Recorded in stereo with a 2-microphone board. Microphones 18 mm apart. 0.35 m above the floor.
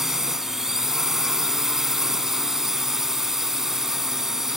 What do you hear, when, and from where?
0.0 s a drone: 20° right (ahead or behind)